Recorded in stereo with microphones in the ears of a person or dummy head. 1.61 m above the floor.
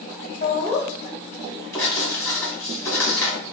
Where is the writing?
20° left (ahead or behind), 2 m.